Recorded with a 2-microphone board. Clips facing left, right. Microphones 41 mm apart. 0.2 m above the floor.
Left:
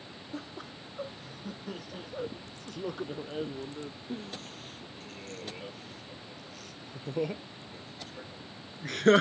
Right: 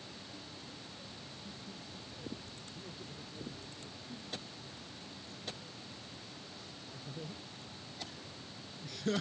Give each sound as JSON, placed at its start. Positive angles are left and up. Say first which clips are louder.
{"t": 0.3, "sound": "laughter", "louder": "left 8 dB", "side_deg": 70}